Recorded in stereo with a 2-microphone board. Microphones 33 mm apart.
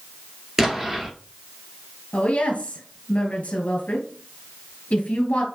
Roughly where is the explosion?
Centre.